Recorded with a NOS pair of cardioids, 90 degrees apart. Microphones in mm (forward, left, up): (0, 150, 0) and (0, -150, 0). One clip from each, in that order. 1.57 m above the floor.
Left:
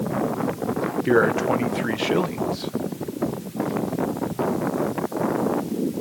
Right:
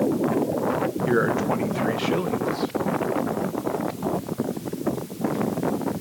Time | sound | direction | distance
1.1 | a man speaking | 25° left | 1.6 m